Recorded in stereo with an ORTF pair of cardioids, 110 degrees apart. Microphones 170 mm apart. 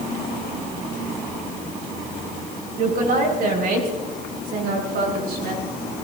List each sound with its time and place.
2.8 s a woman speaking: 60° right, 6 m; by 5.6 s 70° right, 6.5 m